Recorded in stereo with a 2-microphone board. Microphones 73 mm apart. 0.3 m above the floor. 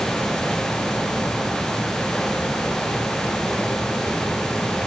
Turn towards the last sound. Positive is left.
No sound to turn to.